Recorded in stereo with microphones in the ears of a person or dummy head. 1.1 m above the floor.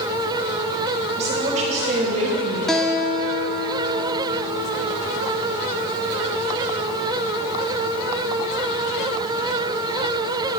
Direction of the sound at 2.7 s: 5° left (ahead or behind).